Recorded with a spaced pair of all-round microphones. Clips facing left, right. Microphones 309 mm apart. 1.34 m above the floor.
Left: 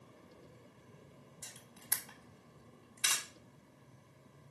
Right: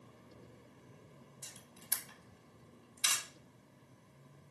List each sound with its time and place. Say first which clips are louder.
1.4 s a camera shutter: even; 70° left (ahead or behind), 3.5 m